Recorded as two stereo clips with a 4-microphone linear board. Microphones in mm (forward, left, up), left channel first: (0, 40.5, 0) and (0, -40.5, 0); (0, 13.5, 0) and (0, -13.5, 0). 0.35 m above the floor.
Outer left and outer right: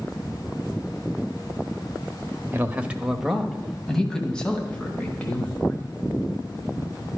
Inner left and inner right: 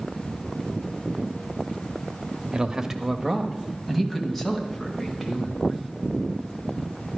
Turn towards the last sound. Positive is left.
turn(degrees=20)  # may be behind; listen again after turning